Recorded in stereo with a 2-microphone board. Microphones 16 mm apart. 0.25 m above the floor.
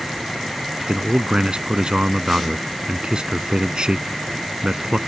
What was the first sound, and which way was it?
A man speaking, 60° right (ahead or behind).